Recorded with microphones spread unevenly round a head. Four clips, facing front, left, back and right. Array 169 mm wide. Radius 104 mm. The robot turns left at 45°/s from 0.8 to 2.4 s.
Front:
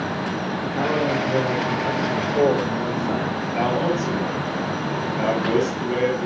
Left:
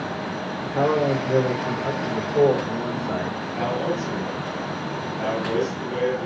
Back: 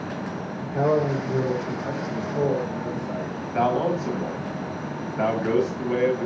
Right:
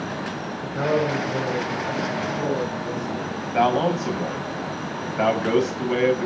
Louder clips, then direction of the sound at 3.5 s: Right 6 dB, even; 80° right.